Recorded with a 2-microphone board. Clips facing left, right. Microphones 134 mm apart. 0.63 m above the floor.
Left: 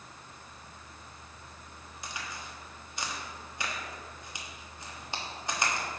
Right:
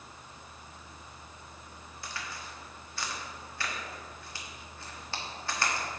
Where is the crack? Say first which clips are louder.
Even; 20° left (ahead or behind), 1.3 m.